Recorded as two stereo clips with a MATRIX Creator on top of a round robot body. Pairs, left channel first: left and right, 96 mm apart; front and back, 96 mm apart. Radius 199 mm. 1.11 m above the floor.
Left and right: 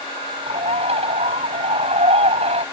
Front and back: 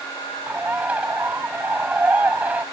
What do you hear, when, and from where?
0.5 s a bird: 105° right